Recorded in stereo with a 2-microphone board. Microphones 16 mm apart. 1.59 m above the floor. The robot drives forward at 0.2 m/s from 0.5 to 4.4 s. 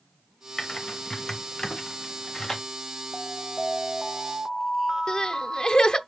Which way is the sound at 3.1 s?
25° right (ahead or behind).